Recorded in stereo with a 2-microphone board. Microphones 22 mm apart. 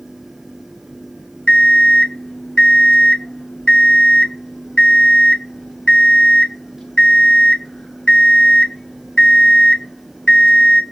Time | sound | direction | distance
1.5 | an alarm clock | 45° left (ahead or behind) | 1.0 m